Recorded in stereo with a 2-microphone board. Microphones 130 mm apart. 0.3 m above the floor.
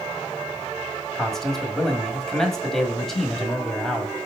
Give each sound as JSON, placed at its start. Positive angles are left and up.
{"t": 1.1, "sound": "a man speaking", "side_deg": 5, "distance_m": 1.7}